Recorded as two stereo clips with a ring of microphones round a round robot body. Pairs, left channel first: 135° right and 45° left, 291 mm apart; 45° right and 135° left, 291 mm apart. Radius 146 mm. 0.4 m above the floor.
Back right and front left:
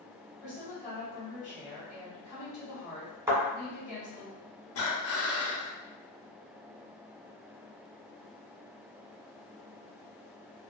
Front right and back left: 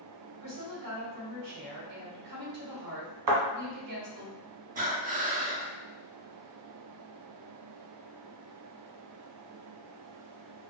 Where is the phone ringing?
I don't hear a phone ringing.